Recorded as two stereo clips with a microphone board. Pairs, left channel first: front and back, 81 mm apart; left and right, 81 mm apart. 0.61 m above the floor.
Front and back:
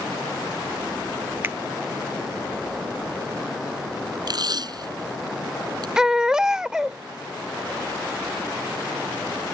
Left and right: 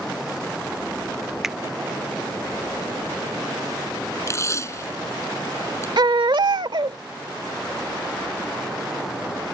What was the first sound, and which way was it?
A finger snap, 170° right.